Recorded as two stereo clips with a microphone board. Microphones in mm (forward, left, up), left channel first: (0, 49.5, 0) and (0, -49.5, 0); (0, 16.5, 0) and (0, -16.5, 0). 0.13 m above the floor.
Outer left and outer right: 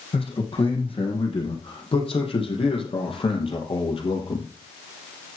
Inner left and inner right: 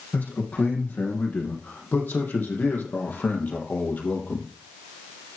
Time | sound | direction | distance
0.1 | a man speaking | 70° left (ahead or behind) | 6 m